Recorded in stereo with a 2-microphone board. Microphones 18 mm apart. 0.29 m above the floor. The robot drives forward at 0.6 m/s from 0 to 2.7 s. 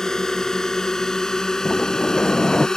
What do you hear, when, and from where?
0.0 s a drone: 30° left (ahead or behind); by 2.8 s 35° left (ahead or behind)
1.6 s a sliding door: 60° left (ahead or behind)